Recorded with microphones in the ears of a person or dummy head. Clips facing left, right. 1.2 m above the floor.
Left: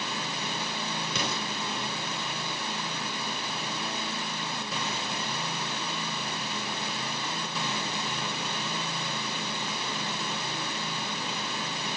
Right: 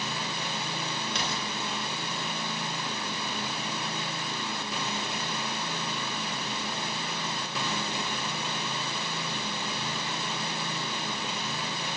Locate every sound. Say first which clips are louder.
1.1 s an explosion: left 1 dB; 75° left (ahead or behind), 1.0 m